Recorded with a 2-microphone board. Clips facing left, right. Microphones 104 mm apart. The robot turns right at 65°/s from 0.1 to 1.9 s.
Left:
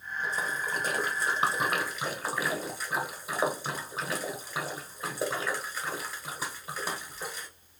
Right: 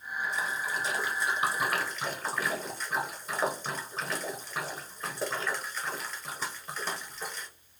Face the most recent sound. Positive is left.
turn(degrees=10)  # may be behind; listen again after turning